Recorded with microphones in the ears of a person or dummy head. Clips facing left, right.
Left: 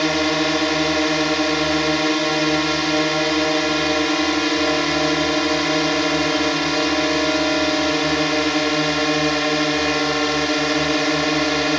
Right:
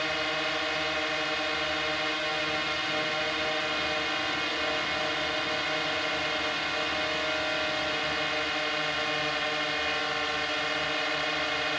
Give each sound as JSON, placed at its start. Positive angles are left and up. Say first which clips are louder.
{"t": 0.0, "sound": "a drone", "louder": "left 14 dB", "side_deg": 70}